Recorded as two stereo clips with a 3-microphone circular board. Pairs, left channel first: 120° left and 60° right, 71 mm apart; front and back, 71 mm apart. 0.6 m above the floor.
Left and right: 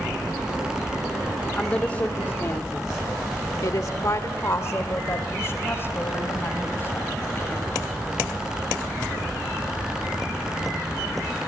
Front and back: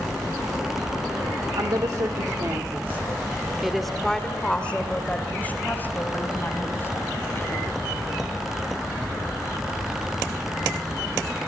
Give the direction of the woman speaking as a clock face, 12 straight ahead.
6 o'clock.